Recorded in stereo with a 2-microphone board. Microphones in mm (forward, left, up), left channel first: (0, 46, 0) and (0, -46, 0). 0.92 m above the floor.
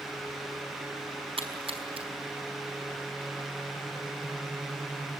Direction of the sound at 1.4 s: 80° right.